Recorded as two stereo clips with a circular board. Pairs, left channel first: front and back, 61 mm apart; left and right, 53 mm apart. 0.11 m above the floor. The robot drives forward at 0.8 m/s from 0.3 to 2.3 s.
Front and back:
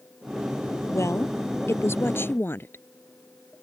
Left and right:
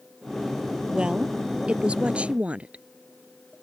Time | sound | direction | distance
0.9 | a woman speaking | 20° right | ?